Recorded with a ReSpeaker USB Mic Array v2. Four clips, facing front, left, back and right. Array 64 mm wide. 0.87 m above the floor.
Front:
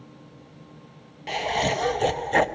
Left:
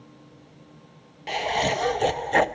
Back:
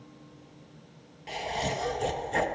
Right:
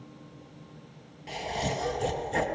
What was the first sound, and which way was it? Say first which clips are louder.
Laughter: left 8 dB, front 7 dB; 50° left.